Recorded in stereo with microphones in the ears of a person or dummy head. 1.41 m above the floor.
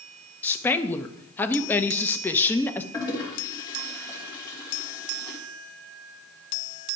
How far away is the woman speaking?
About 0.5 m.